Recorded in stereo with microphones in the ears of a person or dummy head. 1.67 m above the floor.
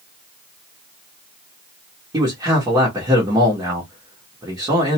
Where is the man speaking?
20° right (ahead or behind), 0.9 m.